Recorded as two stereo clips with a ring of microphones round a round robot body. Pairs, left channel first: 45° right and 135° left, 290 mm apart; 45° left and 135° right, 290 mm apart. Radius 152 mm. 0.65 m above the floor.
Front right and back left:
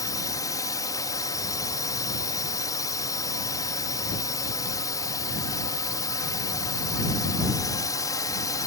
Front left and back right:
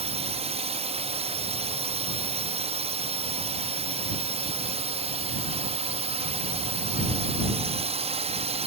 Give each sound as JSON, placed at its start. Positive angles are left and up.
{"t": 0.0, "sound": "a drone", "azimuth_deg": -105}